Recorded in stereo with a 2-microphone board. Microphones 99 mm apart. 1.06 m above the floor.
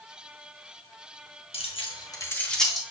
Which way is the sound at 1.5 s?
85° left.